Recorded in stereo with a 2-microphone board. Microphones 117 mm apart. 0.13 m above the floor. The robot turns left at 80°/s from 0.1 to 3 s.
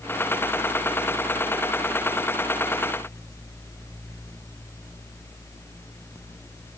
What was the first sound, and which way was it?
Only background noise.